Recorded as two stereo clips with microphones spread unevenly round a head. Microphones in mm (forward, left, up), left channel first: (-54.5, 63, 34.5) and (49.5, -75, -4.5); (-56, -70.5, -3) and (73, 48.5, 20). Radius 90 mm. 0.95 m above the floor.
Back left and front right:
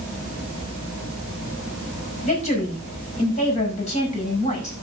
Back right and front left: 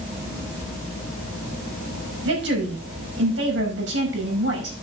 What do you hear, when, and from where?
2.2 s a woman speaking: 70° left, 7.5 m